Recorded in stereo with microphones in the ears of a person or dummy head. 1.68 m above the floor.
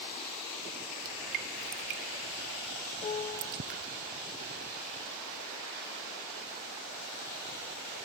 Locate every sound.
1.1 s dripping: 40° right (ahead or behind)
3.0 s a piano: 30° left (ahead or behind)